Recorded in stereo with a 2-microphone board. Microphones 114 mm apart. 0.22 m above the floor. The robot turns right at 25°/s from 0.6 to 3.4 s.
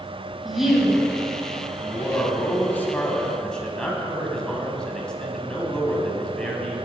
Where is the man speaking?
125° left, 1.1 m; by 6.7 s 165° left, 1.1 m.